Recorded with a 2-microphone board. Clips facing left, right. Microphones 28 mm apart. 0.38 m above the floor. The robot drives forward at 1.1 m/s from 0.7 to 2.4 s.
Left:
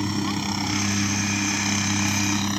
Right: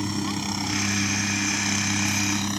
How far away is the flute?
No flute in this recording.